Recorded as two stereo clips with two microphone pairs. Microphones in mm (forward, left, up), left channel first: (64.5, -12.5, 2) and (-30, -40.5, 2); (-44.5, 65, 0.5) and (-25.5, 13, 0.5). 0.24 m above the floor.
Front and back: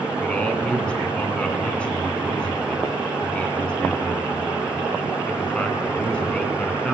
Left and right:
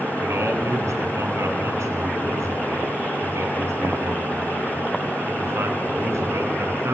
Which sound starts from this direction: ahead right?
A man speaking, at 0.2 s.